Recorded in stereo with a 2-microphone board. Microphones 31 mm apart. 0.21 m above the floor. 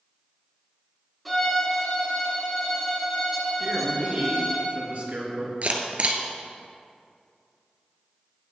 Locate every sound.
1.2 s a violin: 5° left (ahead or behind), 3 m
3.6 s a man speaking: 60° right (ahead or behind), 3.5 m
5.6 s a camera shutter: 45° right (ahead or behind), 1.1 m